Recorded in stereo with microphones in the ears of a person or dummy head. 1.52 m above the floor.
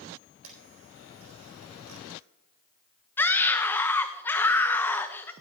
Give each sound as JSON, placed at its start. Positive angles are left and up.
{"t": 0.4, "sound": "a camera shutter", "side_deg": -80, "distance_m": 4.0}
{"t": 3.2, "sound": "a scream", "side_deg": 10, "distance_m": 1.2}